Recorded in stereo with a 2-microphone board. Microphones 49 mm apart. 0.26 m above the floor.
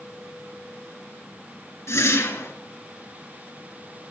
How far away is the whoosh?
About 3 m.